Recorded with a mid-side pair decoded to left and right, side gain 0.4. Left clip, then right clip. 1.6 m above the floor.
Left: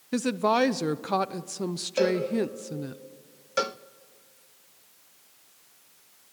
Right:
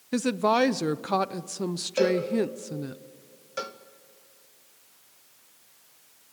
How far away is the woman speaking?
About 0.8 m.